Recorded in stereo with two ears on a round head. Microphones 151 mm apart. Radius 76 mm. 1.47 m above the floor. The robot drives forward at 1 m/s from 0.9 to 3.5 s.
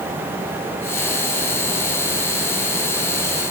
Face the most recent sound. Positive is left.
No sound to turn to.